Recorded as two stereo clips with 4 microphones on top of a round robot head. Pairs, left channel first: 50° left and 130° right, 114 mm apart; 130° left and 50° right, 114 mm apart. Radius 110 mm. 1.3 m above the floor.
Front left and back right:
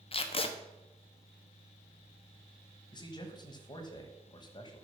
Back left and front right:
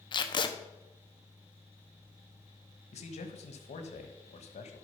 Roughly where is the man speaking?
Left.